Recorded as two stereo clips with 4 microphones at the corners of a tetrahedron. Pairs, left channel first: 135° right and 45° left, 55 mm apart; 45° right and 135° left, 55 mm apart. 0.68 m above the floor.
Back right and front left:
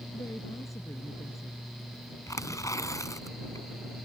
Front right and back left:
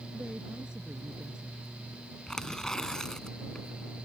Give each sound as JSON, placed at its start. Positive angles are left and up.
{"t": 0.1, "sound": "a woman speaking", "azimuth_deg": -150}
{"t": 2.3, "sound": "tearing paper", "azimuth_deg": -125}